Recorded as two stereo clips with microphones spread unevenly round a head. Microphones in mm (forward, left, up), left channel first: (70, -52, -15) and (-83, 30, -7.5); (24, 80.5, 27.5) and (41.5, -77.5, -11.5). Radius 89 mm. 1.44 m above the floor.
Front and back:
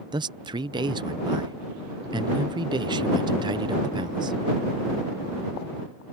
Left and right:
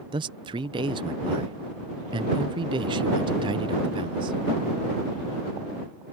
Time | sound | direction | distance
0.1 | a man speaking | 140° right | ?